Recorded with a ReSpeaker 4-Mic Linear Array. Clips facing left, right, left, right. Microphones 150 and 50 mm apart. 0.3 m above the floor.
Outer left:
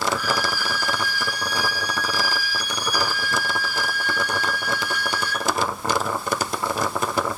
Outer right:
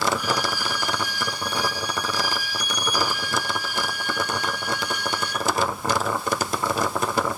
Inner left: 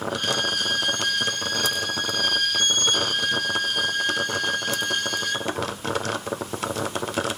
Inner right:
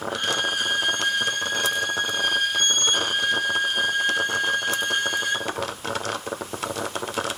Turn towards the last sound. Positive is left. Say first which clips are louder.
# even, inner right 2 dB
turn(degrees=-20)  # may be behind; listen again after turning